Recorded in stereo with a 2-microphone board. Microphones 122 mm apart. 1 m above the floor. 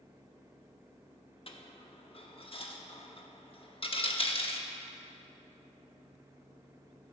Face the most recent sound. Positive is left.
turn(degrees=50)  # may be behind; listen again after turning